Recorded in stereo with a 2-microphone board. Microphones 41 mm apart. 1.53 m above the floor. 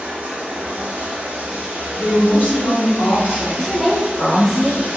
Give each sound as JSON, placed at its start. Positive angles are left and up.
{"t": 0.0, "sound": "running water", "side_deg": -35, "distance_m": 1.0}
{"t": 2.0, "sound": "a woman speaking", "side_deg": 70, "distance_m": 1.3}
{"t": 3.6, "sound": "a woman speaking", "side_deg": 15, "distance_m": 1.3}